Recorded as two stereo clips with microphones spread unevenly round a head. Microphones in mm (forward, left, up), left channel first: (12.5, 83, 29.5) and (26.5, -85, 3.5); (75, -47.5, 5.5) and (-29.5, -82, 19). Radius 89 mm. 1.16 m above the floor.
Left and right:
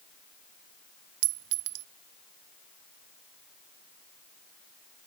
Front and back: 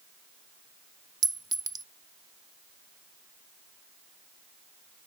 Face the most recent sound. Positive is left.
turn(degrees=-115)